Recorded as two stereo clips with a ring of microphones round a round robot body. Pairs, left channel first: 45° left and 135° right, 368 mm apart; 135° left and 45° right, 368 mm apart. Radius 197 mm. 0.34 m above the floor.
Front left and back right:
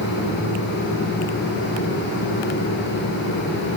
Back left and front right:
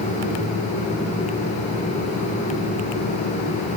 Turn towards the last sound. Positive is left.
No sound to turn to.